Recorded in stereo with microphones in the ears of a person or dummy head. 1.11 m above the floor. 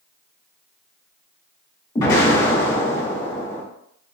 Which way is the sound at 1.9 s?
20° left (ahead or behind).